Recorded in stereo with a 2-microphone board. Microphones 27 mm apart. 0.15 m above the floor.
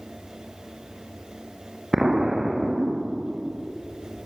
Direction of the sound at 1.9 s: 25° right (ahead or behind).